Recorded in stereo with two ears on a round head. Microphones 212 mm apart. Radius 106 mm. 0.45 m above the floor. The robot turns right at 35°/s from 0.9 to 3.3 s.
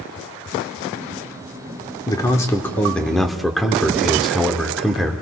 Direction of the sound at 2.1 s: 15° left (ahead or behind).